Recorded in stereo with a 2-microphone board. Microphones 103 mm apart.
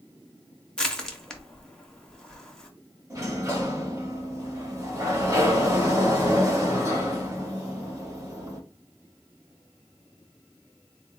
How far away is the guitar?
I don't hear a guitar.